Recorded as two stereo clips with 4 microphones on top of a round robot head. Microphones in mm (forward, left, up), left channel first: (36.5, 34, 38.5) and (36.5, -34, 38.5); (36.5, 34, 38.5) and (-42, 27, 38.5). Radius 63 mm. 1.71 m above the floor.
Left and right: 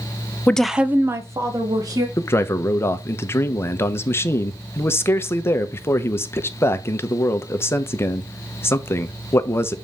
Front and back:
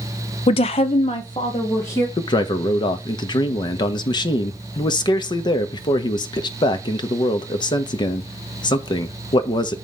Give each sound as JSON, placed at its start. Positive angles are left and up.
{"t": 0.5, "sound": "a woman speaking", "azimuth_deg": 20, "distance_m": 0.7}
{"t": 2.2, "sound": "a man speaking", "azimuth_deg": 35, "distance_m": 1.0}